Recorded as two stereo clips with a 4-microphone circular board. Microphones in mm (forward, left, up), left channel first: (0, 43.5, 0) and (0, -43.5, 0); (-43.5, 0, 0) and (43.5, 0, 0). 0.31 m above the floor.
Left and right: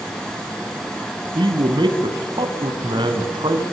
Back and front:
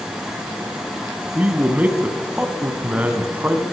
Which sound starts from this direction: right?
A man speaking, at 1.4 s.